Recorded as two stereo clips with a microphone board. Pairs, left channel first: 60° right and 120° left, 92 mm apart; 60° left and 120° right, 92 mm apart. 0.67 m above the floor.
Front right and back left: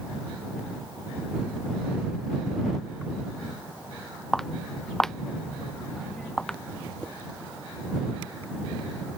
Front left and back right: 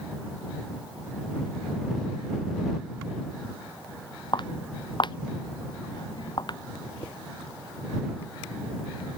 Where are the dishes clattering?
20° left.